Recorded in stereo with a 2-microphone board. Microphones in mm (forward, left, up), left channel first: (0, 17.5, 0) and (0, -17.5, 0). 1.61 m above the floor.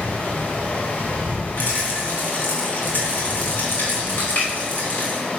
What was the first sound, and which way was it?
Running water, 55° left (ahead or behind).